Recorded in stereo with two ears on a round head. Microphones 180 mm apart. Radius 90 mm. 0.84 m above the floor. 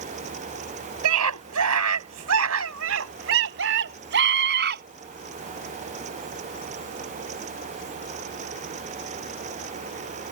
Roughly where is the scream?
Right.